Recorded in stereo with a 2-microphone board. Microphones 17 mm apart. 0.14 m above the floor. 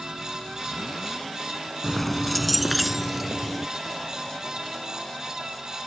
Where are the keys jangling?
10° left (ahead or behind); by 3.7 s 10° right (ahead or behind).